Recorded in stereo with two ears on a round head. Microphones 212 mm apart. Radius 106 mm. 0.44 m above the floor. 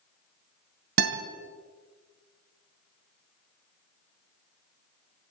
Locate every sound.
1.0 s a guitar: 50° right (ahead or behind), 2 m